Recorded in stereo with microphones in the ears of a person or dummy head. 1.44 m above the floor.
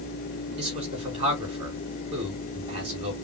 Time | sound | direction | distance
0.6 | a man speaking | 30° right (ahead or behind) | 3.5 m